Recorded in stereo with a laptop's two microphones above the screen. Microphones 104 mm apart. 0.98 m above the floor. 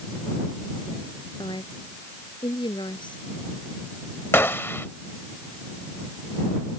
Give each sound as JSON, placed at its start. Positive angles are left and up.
{"t": 1.4, "sound": "a woman speaking", "side_deg": 50}
{"t": 4.3, "sound": "a gunshot", "side_deg": 25}